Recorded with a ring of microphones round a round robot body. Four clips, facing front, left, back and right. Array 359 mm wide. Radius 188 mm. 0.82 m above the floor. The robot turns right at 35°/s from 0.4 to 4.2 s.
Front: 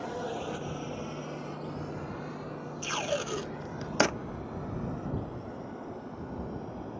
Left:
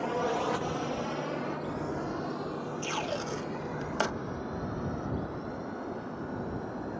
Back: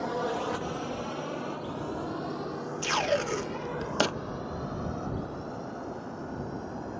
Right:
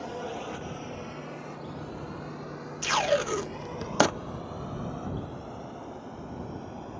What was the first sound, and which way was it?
A drone, 140° left.